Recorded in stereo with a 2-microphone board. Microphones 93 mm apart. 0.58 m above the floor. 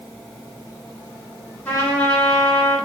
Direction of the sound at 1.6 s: 25° left (ahead or behind).